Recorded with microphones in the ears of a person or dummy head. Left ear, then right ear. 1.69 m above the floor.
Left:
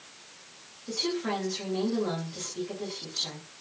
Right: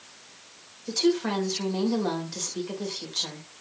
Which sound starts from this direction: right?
A woman speaking, at 0.9 s.